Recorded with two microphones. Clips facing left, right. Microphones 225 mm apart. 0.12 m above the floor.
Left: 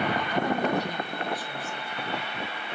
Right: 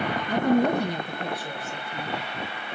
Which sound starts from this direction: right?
A woman speaking, at 0.3 s.